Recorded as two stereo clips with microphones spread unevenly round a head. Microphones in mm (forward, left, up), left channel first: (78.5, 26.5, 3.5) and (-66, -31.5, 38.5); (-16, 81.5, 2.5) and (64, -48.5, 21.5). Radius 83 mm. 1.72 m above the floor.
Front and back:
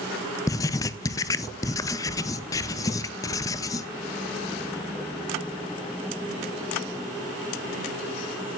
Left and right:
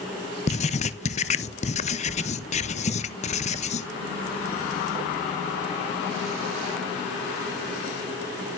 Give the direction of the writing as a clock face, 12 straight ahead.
9 o'clock.